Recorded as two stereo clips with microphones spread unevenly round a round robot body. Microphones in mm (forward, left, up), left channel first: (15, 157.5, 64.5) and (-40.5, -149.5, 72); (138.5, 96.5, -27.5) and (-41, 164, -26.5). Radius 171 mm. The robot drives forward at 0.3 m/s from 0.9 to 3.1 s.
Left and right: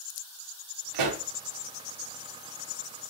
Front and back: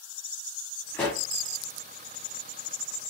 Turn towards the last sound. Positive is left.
turn(degrees=-145)